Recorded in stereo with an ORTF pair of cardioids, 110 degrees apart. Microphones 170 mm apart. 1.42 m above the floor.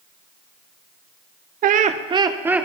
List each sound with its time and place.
1.6 s laughter: 60° right, 0.9 m; by 2.6 s 5° right, 1.1 m